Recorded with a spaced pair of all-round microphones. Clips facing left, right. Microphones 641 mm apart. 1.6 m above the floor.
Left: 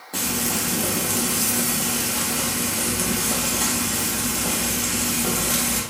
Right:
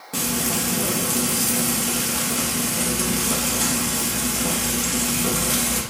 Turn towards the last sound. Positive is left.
turn(degrees=-35)  # may be behind; listen again after turning